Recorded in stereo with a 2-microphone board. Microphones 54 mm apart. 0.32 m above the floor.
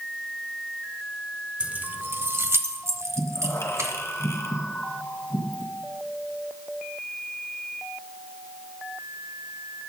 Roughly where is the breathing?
Left.